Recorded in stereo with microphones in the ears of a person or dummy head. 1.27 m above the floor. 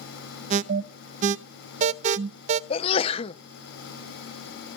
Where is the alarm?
45° right (ahead or behind), 0.8 m.